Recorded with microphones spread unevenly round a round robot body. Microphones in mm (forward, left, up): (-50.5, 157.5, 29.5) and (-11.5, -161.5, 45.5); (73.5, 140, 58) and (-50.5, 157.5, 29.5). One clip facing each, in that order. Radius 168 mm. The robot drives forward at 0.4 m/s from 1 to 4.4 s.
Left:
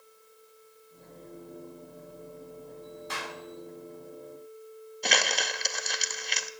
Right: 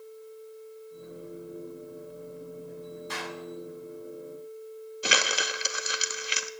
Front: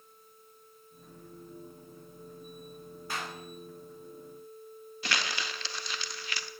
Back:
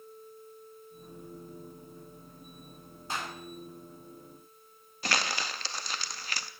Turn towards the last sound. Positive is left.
turn(degrees=-165)